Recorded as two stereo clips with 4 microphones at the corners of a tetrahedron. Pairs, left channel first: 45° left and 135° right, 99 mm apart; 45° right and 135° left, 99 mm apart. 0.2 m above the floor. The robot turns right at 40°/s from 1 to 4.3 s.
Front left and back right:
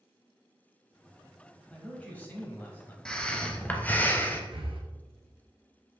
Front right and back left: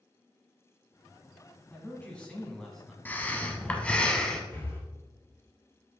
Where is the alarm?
I don't hear an alarm.